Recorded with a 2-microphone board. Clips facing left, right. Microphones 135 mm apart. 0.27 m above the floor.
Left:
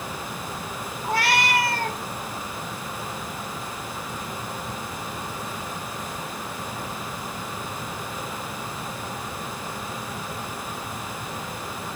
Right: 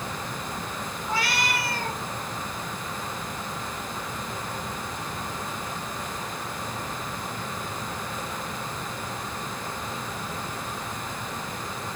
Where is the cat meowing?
60° left (ahead or behind), 1.1 m.